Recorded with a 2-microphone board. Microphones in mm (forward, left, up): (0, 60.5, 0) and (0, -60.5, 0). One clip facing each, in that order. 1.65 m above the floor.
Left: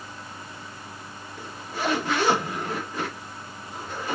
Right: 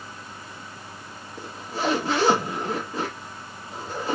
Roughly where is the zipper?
Right.